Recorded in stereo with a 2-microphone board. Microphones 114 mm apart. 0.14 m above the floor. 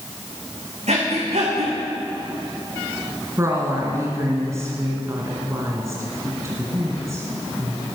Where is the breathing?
80° right, 4 m.